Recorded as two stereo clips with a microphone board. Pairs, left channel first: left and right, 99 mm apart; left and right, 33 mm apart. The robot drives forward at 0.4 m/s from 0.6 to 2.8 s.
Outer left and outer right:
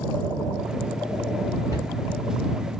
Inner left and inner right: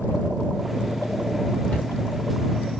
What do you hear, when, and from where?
1.7 s a cupboard door: 40° left (ahead or behind), 1.3 m; by 1.9 s 35° left (ahead or behind), 1.4 m